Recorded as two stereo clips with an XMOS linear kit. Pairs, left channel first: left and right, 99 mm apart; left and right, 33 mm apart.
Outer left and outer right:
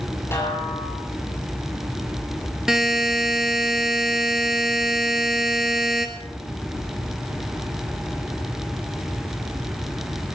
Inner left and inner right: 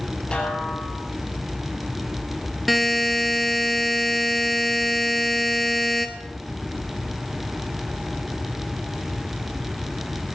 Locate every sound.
0.3 s a snare drum: 25° left (ahead or behind), 5.5 m
2.7 s a buzzer: 5° right (ahead or behind), 1.5 m